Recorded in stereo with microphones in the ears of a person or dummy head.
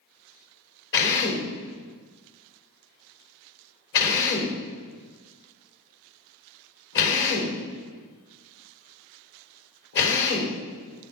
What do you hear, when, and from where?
0.9 s a drill: 60° left (ahead or behind), 3.5 m